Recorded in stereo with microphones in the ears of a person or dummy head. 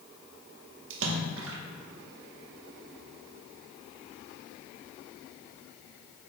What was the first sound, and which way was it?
A splash, 80° right.